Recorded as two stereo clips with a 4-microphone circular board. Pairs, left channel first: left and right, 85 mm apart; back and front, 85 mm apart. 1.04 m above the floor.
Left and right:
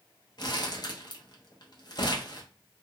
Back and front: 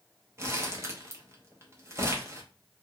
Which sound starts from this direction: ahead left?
Crumpling, at 0.4 s.